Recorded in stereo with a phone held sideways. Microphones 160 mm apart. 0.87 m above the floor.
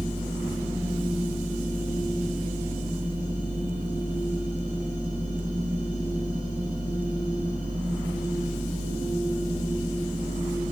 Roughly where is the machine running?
Right.